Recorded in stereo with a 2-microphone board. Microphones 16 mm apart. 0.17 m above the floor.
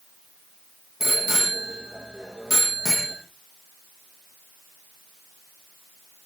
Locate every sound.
1.0 s a bicycle bell: 20° right (ahead or behind), 5 m